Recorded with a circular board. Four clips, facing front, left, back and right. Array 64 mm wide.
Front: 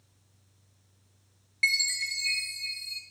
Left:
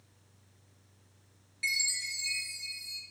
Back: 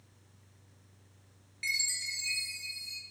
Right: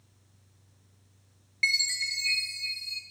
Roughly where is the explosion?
No explosion in this recording.